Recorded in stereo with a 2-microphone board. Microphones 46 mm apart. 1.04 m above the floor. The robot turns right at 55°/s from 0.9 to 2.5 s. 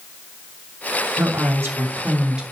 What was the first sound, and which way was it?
A woman speaking, 85° right.